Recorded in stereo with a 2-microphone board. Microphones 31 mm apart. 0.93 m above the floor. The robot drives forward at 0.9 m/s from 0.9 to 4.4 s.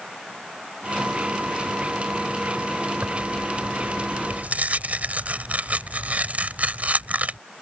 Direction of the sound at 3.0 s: 85° right.